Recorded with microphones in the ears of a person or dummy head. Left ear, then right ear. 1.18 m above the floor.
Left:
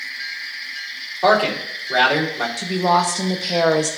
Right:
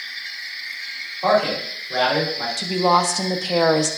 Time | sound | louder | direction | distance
1.2 | a man speaking | left 2 dB | 80° left | 2.5 m
2.6 | a woman speaking | even | 5° right (ahead or behind) | 0.6 m